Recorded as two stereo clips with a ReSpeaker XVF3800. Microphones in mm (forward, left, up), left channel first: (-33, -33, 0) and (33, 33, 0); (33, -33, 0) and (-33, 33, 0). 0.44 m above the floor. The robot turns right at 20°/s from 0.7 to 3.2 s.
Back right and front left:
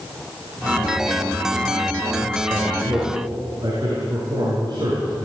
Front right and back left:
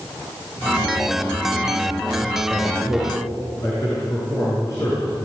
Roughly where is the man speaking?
Ahead.